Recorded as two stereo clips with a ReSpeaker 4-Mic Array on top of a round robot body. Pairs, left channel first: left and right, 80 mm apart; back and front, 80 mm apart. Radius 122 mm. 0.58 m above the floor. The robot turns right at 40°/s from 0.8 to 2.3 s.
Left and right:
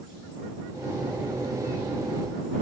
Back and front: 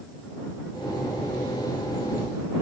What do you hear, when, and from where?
Only background noise.